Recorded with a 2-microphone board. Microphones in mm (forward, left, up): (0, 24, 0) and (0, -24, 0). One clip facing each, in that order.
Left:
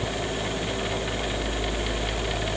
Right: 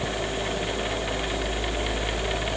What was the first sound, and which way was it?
Only background noise.